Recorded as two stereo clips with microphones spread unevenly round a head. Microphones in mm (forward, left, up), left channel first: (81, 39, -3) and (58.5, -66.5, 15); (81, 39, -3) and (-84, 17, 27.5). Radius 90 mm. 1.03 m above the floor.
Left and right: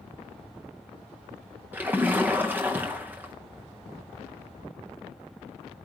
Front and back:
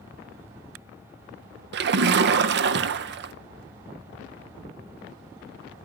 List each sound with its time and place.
1.7 s a splash: 175° left, 0.5 m